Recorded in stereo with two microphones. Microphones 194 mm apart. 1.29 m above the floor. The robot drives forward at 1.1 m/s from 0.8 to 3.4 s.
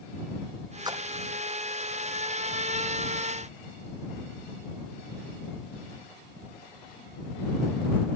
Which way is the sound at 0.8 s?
20° right (ahead or behind).